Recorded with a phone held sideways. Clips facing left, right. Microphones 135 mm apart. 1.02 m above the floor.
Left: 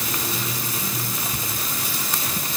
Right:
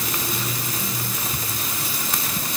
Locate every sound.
Only background noise.